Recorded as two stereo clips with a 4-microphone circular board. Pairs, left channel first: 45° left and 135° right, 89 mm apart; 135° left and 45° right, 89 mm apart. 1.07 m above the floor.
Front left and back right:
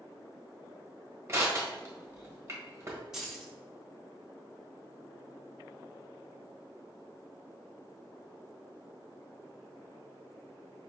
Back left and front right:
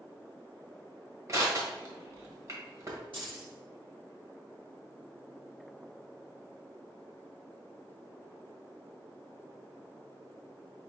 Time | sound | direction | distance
1.3 | crushing | 85° right | 1.3 m
3.1 | keys jangling | 50° right | 1.6 m